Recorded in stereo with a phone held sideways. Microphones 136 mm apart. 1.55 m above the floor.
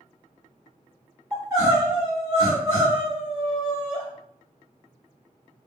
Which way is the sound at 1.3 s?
20° right (ahead or behind).